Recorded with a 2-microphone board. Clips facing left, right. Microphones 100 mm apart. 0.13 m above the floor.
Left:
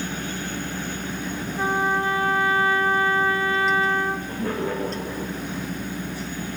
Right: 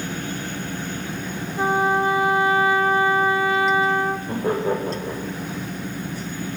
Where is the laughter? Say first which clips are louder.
Right 4 dB; 25° right (ahead or behind), 8 m.